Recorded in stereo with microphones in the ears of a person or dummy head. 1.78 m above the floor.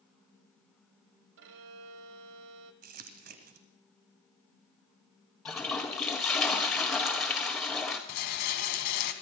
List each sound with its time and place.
1.4 s a violin: 70° right (ahead or behind), 1.0 m
2.8 s crumpling: 55° right (ahead or behind), 1.1 m
5.5 s a toilet flushing: 10° left (ahead or behind), 1.7 m
8.1 s a rattle: 65° left (ahead or behind), 1.5 m